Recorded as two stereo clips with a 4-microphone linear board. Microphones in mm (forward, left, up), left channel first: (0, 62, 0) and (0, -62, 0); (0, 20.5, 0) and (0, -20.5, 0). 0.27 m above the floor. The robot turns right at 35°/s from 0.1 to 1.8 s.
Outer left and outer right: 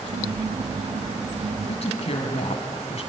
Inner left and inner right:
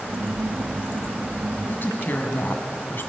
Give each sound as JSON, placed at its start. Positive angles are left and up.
{"t": 1.7, "sound": "a woman speaking", "side_deg": 60, "distance_m": 1.7}